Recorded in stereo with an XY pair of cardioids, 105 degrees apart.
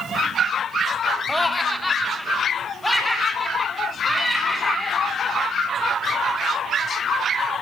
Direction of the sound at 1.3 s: Straight ahead.